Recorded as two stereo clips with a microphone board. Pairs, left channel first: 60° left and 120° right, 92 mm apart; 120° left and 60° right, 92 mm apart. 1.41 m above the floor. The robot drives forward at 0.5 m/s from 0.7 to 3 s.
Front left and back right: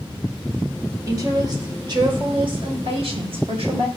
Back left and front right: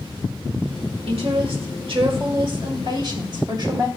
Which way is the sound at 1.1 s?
70° right.